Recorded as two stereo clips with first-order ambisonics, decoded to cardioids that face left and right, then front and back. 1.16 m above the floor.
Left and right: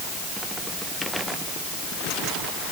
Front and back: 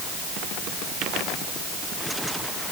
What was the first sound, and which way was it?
Only background noise.